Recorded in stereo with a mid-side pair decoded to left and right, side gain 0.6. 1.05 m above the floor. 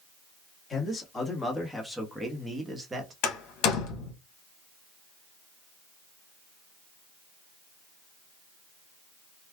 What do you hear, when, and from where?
0.7 s a man speaking: 25° left, 1.5 m; by 3.1 s 30° right, 1.2 m
3.2 s a door slam: 65° left, 1.1 m